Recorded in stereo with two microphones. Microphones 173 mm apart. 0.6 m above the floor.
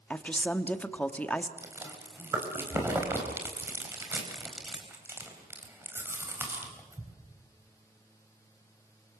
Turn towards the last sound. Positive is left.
turn(degrees=-15)  # may be behind; listen again after turning